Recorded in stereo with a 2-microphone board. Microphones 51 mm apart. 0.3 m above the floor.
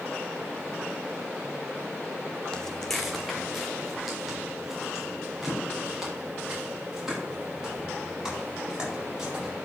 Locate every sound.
2.5 s footsteps: 15° left (ahead or behind), 0.7 m; by 9.5 s 10° right (ahead or behind), 8 m